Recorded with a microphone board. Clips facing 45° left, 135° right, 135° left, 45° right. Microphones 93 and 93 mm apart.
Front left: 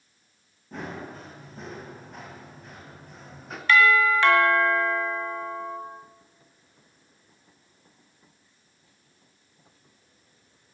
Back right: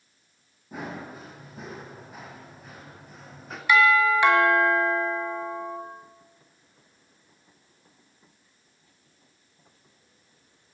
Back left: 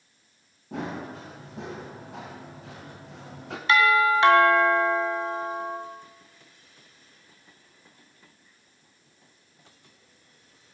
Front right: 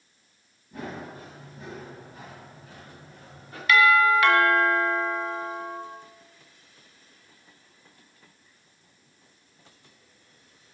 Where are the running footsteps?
140° left, 7 m; by 3.6 s 135° left, 3.5 m.